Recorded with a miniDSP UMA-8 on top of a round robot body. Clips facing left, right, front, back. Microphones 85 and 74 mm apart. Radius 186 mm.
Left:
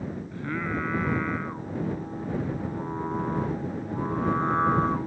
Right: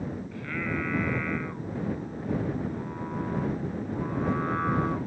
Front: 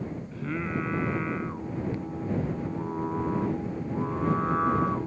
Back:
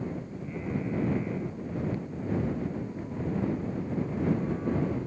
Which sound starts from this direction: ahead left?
Singing, at 0.3 s.